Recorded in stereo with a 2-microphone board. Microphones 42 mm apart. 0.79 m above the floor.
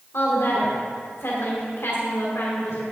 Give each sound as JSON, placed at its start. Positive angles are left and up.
{"t": 0.1, "sound": "a woman speaking", "side_deg": 75, "distance_m": 2.0}